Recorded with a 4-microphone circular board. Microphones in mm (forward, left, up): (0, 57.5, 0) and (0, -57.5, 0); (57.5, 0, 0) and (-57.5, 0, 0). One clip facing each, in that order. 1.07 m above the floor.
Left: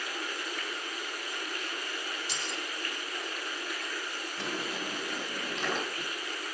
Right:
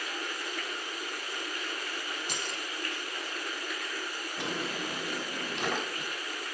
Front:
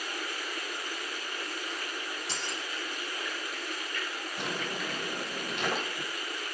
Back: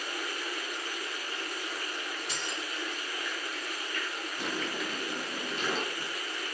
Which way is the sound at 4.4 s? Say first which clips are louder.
Right 2 dB, even; 15° right.